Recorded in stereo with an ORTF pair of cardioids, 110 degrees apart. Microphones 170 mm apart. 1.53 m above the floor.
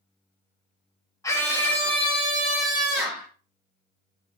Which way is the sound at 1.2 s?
20° left.